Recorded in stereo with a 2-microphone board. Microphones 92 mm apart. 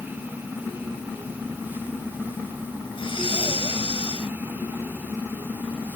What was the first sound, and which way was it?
Breathing, 80° left.